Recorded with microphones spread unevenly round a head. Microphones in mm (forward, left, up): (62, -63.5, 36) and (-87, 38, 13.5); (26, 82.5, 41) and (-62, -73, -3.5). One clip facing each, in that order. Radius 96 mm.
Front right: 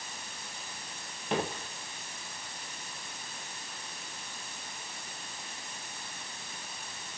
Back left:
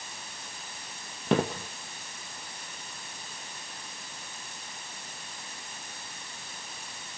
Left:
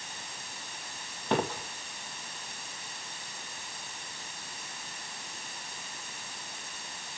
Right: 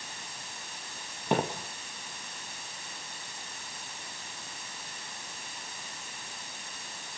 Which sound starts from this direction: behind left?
Footsteps, at 1.3 s.